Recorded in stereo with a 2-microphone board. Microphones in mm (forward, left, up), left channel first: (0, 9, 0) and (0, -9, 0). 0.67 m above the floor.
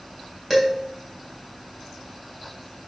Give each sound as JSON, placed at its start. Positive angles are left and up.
{"t": 0.5, "sound": "dishes clattering", "side_deg": 0, "distance_m": 3.0}